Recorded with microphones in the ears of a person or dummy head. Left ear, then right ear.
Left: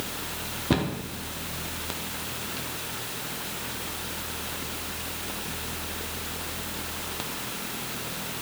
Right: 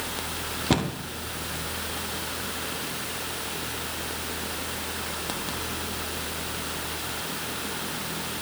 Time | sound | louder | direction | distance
0.7 | a cupboard door | right 1 dB | 15° right (ahead or behind) | 0.5 m